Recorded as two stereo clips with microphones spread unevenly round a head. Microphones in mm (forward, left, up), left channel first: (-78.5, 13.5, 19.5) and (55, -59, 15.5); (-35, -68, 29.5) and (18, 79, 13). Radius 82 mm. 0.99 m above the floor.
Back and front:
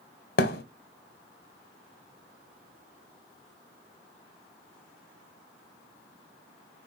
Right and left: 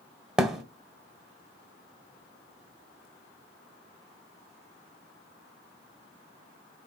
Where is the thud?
160° left, 1.2 m.